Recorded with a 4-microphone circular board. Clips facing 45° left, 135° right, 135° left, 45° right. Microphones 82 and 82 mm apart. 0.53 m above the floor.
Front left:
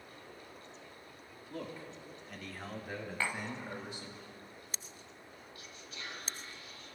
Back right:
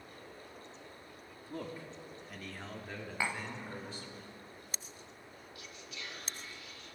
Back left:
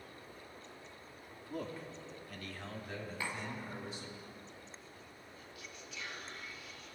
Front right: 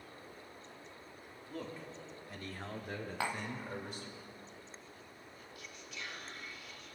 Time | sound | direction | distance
1.5 | a man speaking | 170° right | 1.0 m
3.2 | tapping | 55° right | 0.6 m
5.5 | whispering | 45° left | 1.3 m